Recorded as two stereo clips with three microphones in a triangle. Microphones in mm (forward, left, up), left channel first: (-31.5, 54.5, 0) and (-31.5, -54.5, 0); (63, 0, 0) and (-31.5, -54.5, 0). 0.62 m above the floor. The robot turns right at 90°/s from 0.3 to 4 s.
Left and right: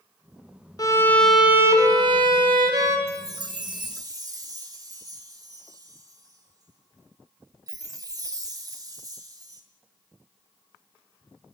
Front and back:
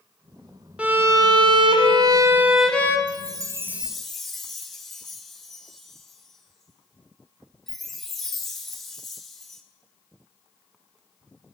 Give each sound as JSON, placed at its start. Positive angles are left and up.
{"t": 0.8, "sound": "a violin", "azimuth_deg": 135, "distance_m": 0.7}
{"t": 3.1, "sound": "a chime", "azimuth_deg": -140, "distance_m": 0.6}